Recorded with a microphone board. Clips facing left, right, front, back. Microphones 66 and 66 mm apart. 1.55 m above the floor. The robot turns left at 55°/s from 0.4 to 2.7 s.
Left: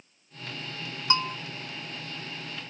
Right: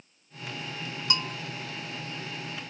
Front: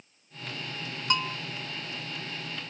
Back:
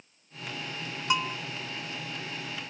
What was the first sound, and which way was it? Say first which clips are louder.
A bell: left 6 dB, back 1 dB; 100° left.